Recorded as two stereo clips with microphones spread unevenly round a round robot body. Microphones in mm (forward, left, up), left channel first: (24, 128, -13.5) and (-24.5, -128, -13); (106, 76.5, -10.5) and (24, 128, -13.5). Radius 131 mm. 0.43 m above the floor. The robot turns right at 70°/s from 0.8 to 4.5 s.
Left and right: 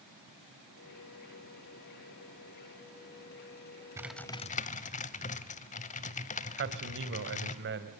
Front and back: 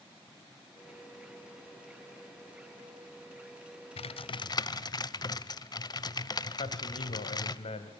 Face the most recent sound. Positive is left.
turn(degrees=-55)